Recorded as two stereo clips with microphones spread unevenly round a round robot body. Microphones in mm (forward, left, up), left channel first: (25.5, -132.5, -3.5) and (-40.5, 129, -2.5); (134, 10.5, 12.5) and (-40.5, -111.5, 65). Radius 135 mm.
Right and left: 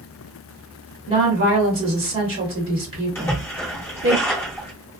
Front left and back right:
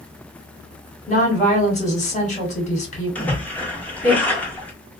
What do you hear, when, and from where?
1.1 s a woman speaking: 40° left, 1.8 m
3.1 s a splash: 5° right, 1.0 m